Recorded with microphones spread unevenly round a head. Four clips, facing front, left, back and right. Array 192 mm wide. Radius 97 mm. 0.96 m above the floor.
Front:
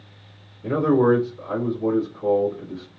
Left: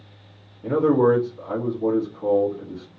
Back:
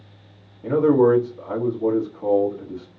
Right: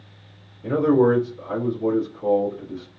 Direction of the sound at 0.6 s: 155° left.